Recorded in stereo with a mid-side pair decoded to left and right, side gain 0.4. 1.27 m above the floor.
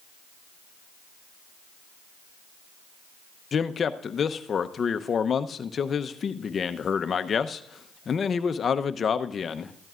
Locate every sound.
3.5 s a man speaking: 50° left, 0.8 m